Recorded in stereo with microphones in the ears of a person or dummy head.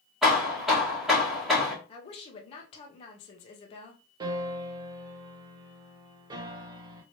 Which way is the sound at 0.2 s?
5° right (ahead or behind).